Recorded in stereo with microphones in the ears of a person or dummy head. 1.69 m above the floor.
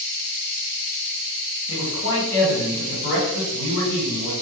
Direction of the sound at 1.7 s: 70° left (ahead or behind).